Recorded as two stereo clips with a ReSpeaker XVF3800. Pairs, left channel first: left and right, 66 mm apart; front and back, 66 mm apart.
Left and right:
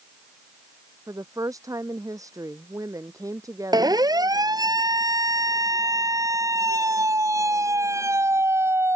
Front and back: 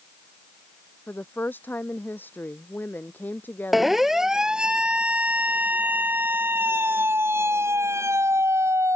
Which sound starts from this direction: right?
A siren, at 3.7 s.